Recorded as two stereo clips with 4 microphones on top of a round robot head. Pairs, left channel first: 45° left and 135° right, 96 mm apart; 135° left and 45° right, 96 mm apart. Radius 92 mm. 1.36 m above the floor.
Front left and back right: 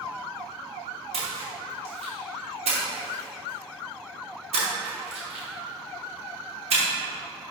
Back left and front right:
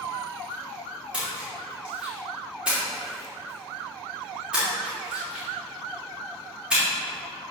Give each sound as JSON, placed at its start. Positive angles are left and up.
{"t": 1.1, "sound": "a splash", "azimuth_deg": -125, "distance_m": 2.5}